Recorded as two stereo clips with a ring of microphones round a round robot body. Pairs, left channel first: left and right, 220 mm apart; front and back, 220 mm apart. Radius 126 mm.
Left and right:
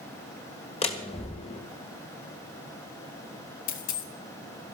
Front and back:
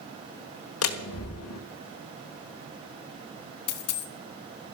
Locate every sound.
0.8 s a door slam: 25° left, 1.3 m
3.7 s a dropped coin: 30° left, 0.9 m